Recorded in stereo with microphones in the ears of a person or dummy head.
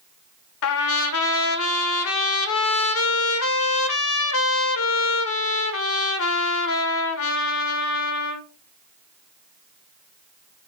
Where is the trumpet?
75° left (ahead or behind), 0.5 m.